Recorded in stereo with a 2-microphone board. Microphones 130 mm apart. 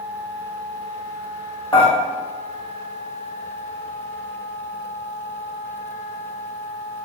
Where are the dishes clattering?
45° left (ahead or behind), 1.3 m.